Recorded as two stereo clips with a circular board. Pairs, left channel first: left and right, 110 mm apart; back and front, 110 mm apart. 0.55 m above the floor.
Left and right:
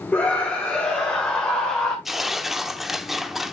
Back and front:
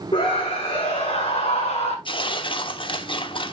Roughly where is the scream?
Behind.